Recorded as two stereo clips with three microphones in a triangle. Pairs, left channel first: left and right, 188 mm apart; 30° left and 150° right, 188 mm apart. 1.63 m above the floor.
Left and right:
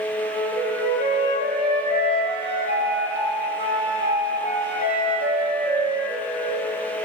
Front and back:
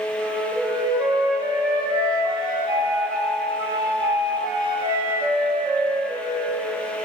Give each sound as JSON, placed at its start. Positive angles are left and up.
{"t": 0.2, "sound": "a flute", "azimuth_deg": -80, "distance_m": 2.0}